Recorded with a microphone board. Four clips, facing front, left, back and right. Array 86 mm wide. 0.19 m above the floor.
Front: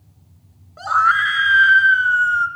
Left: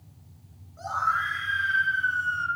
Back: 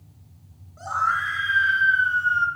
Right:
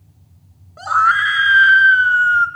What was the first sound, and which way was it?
A scream, 50° right.